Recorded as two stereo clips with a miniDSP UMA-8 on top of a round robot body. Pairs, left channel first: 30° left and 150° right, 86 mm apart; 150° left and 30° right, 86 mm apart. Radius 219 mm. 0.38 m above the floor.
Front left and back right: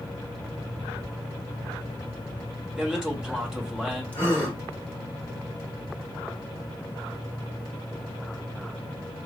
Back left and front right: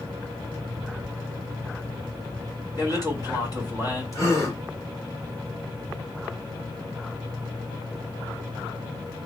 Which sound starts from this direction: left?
A gasp, at 4.1 s.